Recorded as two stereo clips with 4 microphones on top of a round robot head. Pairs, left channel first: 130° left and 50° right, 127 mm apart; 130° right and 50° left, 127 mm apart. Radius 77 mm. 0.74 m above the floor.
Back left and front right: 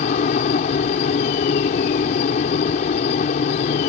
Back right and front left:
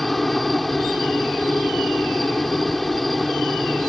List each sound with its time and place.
0.0 s a helicopter: 140° left